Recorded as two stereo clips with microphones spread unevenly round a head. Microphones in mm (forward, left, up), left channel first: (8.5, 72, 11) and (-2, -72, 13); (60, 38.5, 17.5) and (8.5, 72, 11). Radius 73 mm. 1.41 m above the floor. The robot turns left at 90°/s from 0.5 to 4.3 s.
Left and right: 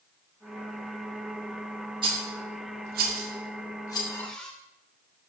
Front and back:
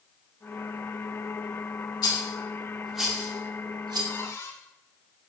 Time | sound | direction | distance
2.0 | a rattle | 35° right | 2 m
4.1 | a cupboard door | 20° left | 2.5 m